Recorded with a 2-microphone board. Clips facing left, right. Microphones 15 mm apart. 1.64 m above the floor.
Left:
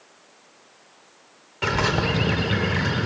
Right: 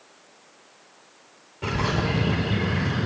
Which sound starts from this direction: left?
A bird, at 1.6 s.